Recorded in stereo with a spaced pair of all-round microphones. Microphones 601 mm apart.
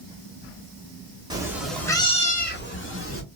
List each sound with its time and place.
1.3 s a cat meowing: 5° right (ahead or behind), 0.8 m; by 3.2 s 20° left (ahead or behind), 1.1 m